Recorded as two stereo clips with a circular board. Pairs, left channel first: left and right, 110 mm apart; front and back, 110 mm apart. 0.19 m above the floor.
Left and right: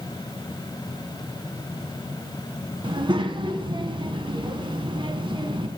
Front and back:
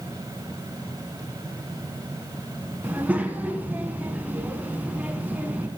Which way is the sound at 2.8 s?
110° right.